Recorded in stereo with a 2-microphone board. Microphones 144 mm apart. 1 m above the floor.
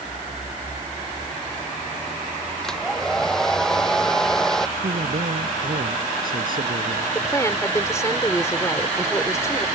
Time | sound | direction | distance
2.6 | a hair dryer | 5° left (ahead or behind) | ?
4.8 | a man speaking | 80° right | ?
7.2 | a woman speaking | 20° left (ahead or behind) | ?